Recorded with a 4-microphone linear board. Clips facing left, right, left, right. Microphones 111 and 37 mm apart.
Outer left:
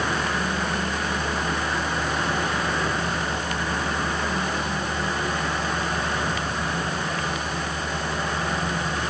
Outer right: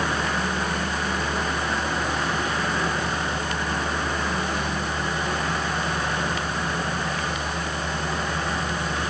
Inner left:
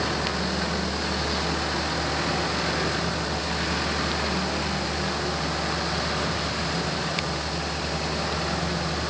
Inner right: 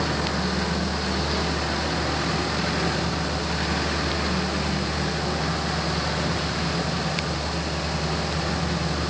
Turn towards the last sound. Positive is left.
No sound to turn to.